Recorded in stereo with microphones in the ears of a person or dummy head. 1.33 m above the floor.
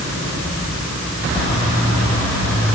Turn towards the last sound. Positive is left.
No sound to turn to.